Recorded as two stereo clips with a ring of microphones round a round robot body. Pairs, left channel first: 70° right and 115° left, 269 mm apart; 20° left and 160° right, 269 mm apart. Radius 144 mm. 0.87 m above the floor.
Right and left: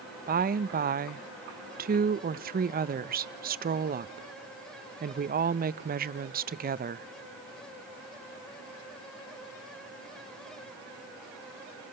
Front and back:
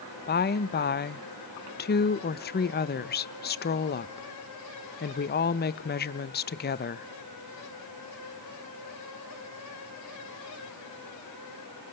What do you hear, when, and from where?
0.3 s a woman speaking: 65° left, 0.6 m